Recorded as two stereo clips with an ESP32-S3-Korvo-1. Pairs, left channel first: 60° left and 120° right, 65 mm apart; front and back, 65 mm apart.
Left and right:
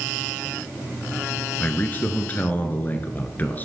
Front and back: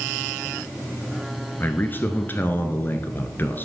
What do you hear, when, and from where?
1.6 s a man speaking: 20° left, 1.2 m